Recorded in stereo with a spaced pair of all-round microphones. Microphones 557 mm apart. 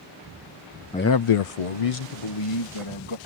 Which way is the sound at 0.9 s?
10° left (ahead or behind).